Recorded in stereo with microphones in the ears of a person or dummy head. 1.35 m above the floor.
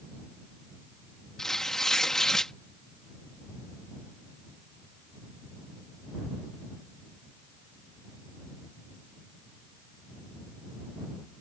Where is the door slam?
I don't hear a door slam.